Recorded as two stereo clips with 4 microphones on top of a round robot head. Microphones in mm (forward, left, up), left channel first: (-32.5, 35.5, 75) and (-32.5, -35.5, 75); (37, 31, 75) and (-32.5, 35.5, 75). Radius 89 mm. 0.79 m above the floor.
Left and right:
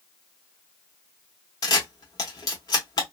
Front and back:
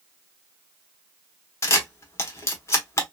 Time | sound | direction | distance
1.6 | a camera shutter | 45° left | 0.8 m